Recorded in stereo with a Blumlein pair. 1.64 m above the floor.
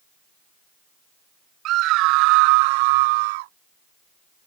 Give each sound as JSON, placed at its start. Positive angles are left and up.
{"t": 1.6, "sound": "a scream", "azimuth_deg": -35}